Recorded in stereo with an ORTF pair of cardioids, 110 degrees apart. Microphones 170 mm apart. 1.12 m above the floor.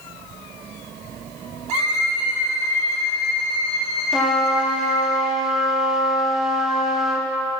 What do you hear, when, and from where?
1.7 s a violin: 40° right, 3 m
4.1 s a trumpet: straight ahead, 1.0 m